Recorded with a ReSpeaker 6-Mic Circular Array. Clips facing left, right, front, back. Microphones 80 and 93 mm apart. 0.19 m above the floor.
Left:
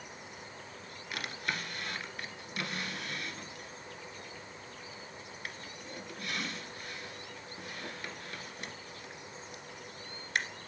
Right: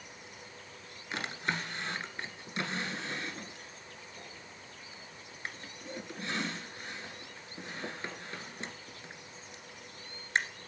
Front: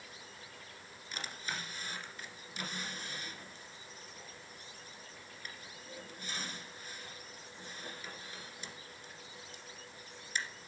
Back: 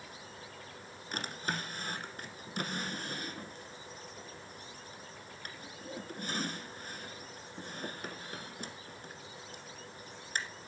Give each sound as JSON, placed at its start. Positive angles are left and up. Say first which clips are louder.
{"t": 1.1, "sound": "a drawer", "louder": "right 3 dB, back 5 dB", "azimuth_deg": -150, "distance_m": 1.6}